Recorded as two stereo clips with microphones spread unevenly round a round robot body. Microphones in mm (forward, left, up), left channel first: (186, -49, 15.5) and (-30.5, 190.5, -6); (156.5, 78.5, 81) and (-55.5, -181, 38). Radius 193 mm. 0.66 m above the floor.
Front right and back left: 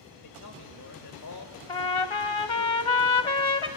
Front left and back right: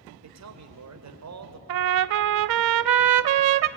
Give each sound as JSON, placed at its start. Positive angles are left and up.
{"t": 0.2, "sound": "a man speaking", "azimuth_deg": -95, "distance_m": 3.0}
{"t": 1.7, "sound": "a trumpet", "azimuth_deg": -115, "distance_m": 0.6}